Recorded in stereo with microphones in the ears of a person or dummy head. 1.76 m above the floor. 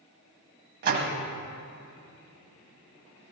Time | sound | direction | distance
0.8 | a door slam | 50° right (ahead or behind) | 1.3 m